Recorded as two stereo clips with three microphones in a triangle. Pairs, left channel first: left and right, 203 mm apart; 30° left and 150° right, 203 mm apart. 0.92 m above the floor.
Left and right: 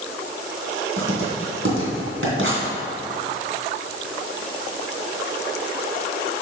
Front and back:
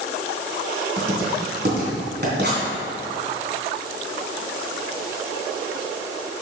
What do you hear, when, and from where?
1.0 s writing: 110° right, 2.5 m